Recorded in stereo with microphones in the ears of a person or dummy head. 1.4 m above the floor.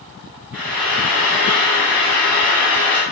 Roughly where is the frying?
Centre.